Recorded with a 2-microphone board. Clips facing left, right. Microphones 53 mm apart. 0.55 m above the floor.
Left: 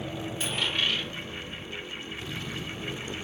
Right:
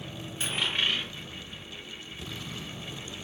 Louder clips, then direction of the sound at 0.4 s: Even; 10° right (ahead or behind).